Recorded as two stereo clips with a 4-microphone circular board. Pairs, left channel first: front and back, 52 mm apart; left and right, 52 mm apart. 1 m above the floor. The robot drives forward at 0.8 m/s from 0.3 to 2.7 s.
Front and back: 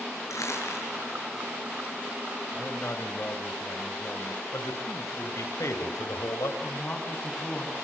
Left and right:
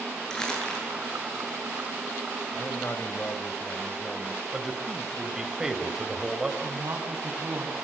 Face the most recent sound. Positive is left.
turn(degrees=-60)